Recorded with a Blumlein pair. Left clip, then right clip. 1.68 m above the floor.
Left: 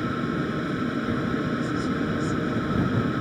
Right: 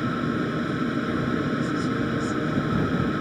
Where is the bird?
No bird in this recording.